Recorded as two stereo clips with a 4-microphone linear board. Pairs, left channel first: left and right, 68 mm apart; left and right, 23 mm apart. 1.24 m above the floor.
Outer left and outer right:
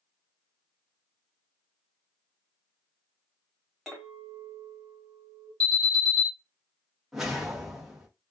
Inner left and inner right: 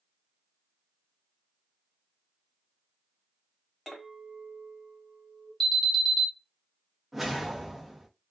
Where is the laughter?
I don't hear laughter.